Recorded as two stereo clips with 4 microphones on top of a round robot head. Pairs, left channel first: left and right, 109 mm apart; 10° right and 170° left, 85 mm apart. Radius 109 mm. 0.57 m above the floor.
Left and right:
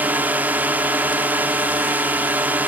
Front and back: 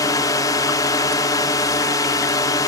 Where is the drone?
20° right.